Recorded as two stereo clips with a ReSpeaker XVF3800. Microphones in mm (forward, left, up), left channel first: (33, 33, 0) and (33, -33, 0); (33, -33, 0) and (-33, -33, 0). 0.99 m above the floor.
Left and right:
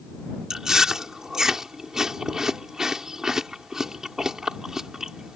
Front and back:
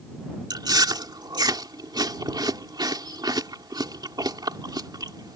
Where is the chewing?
170° right.